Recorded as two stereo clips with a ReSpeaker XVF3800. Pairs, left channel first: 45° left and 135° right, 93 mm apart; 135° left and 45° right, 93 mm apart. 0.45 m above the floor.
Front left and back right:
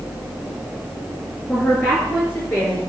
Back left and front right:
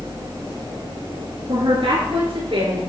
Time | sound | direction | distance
1.5 | a woman speaking | 30° right | 8 m